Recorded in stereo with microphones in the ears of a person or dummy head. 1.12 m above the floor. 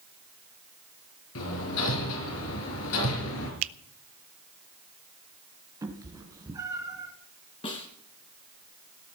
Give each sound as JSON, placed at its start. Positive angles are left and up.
{"t": 1.4, "sound": "hammering", "side_deg": 75, "distance_m": 4.5}
{"t": 3.6, "sound": "a finger snap", "side_deg": -65, "distance_m": 0.5}
{"t": 5.8, "sound": "a cat meowing", "side_deg": -20, "distance_m": 2.5}
{"t": 7.6, "sound": "a snare drum", "side_deg": 30, "distance_m": 3.0}